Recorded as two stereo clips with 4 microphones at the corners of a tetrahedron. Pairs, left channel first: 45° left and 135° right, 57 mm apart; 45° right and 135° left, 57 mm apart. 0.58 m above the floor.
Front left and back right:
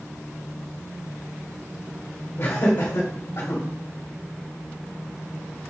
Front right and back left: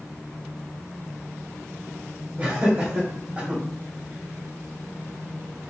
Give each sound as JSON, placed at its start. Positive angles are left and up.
{"t": 2.4, "sound": "laughter", "azimuth_deg": 70, "distance_m": 2.0}